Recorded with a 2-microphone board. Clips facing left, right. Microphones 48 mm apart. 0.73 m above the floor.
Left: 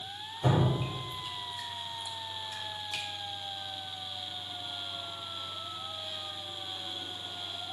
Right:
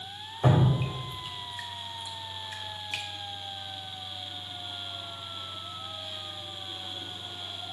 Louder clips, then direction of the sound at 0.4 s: Right 3 dB; 40° right (ahead or behind).